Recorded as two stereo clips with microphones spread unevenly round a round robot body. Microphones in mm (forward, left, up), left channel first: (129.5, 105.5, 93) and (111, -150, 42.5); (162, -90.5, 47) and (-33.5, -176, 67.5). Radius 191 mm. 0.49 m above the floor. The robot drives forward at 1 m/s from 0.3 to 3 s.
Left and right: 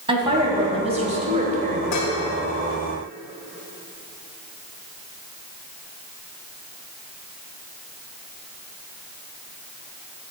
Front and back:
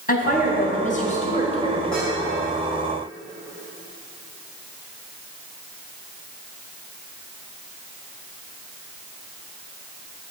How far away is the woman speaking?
About 3.5 m.